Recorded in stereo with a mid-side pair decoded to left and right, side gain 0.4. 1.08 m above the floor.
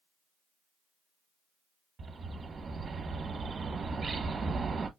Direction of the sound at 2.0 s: 45° right.